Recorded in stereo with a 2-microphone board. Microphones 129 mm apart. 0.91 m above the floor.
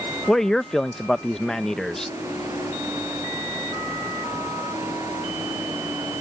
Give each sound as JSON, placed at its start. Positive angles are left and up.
{"t": 0.3, "sound": "a man speaking", "side_deg": 5}